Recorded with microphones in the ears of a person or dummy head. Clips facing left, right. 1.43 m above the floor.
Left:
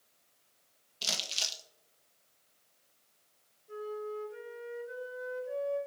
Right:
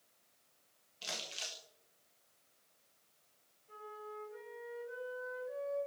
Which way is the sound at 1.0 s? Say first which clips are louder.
Left 3 dB; 60° left (ahead or behind).